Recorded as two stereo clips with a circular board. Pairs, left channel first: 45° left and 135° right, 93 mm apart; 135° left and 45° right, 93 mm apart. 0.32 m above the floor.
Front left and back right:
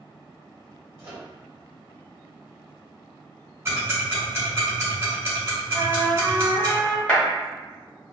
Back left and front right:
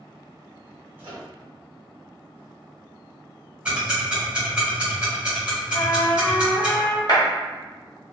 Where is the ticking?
110° right, 1.5 m.